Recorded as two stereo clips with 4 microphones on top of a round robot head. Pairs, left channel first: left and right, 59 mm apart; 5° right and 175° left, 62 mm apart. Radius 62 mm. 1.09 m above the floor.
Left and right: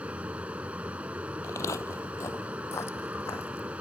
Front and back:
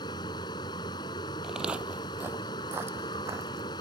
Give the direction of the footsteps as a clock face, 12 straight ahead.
9 o'clock.